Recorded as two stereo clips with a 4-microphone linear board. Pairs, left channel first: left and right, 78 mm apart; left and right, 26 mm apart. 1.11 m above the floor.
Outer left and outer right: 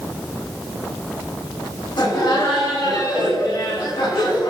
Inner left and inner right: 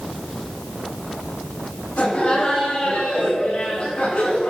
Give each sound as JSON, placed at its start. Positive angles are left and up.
{"t": 2.0, "sound": "laughter", "side_deg": 75, "distance_m": 8.5}